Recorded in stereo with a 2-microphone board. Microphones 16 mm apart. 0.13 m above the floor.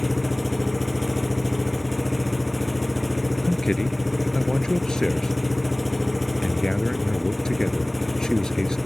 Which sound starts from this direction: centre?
An engine running, at 0.0 s.